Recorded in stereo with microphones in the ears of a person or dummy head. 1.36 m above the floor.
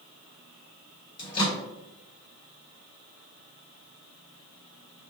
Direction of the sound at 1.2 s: 30° left (ahead or behind).